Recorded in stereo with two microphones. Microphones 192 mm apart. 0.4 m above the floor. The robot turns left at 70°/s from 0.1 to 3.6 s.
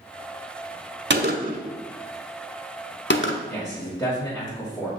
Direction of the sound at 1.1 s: 70° right (ahead or behind).